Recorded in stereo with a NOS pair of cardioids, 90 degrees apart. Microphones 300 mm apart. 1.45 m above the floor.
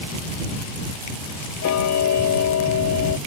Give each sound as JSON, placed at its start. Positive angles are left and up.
{"t": 1.6, "sound": "ticking", "azimuth_deg": 65}